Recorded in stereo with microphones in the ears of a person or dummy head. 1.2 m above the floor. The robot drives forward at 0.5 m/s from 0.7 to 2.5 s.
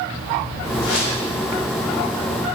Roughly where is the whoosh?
Left.